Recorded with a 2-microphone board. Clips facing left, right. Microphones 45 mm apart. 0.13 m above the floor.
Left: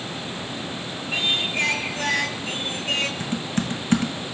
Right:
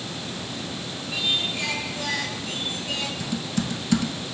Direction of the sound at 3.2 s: 40° left (ahead or behind).